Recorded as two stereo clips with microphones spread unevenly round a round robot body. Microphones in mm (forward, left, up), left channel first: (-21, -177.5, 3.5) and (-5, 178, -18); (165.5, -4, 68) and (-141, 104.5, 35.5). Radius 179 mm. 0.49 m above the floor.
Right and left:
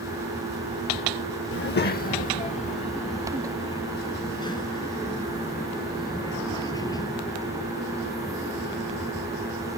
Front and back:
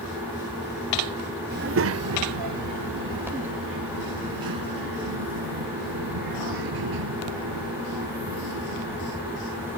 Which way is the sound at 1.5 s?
145° right.